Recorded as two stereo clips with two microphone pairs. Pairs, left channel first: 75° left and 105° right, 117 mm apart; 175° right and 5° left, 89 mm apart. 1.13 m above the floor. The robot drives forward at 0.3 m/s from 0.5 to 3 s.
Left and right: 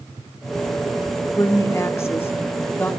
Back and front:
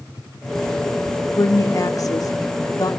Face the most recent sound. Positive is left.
turn(degrees=145)